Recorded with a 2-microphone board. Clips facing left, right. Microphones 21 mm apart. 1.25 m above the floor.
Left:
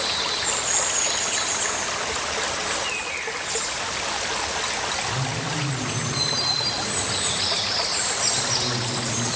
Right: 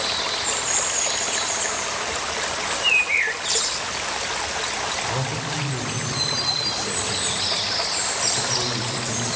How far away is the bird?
About 0.9 m.